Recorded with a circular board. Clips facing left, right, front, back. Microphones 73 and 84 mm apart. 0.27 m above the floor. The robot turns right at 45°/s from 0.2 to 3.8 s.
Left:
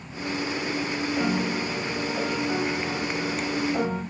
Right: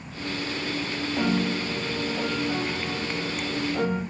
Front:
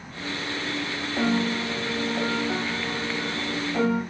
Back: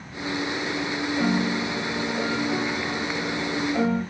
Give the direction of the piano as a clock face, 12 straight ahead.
1 o'clock.